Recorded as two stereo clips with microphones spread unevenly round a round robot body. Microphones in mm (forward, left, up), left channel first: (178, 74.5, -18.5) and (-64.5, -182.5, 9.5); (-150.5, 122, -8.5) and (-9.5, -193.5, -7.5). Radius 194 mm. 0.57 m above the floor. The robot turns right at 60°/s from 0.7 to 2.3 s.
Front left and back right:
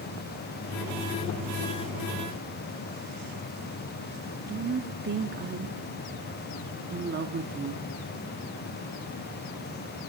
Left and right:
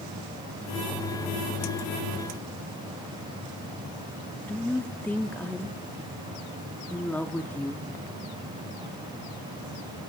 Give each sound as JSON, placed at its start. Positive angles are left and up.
{"t": 4.5, "sound": "a woman speaking", "azimuth_deg": -165, "distance_m": 0.6}